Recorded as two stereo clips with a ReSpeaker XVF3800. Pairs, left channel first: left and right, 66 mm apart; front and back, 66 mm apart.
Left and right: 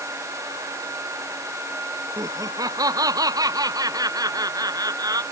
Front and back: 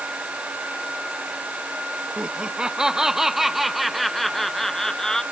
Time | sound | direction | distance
2.2 | laughter | 105° right | ?